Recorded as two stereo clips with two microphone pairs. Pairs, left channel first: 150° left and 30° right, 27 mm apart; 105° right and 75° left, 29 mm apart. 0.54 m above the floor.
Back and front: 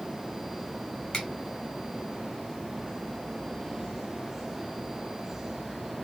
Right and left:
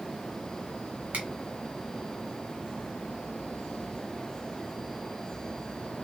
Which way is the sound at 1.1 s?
95° left.